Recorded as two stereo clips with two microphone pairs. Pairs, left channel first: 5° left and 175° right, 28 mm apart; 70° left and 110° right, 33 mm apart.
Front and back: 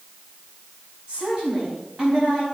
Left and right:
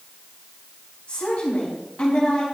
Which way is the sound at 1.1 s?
130° left.